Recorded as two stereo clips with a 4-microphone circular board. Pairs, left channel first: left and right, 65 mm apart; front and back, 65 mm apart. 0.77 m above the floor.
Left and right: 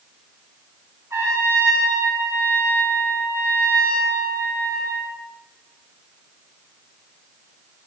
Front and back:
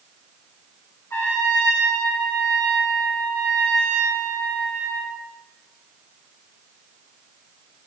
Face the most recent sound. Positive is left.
turn(degrees=-50)